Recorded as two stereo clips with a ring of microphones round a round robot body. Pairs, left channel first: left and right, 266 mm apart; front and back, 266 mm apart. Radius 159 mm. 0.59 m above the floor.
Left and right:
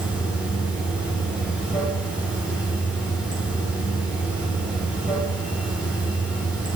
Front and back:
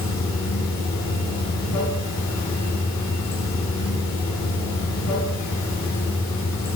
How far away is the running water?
About 2.5 m.